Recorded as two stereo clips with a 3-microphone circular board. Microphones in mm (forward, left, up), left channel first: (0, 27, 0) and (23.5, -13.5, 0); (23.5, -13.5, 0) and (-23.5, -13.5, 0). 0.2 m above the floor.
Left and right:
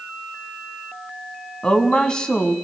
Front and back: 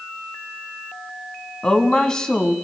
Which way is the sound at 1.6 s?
60° left.